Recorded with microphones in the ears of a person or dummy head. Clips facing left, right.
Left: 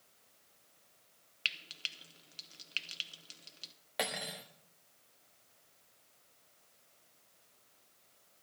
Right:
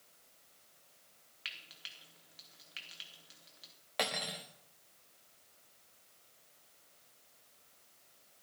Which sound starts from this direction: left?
Frying, at 1.4 s.